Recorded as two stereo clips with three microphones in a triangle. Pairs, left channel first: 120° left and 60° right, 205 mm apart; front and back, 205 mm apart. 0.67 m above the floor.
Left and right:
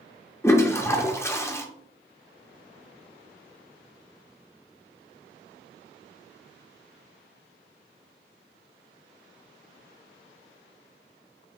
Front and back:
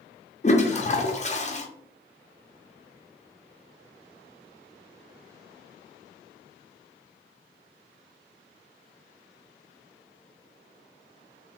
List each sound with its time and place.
0.4 s a toilet flushing: 45° left, 0.6 m